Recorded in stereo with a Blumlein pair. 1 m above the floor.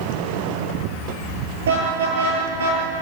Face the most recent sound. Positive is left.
turn(degrees=-55)